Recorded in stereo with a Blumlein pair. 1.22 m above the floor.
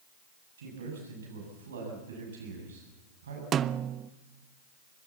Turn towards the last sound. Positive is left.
turn(degrees=-25)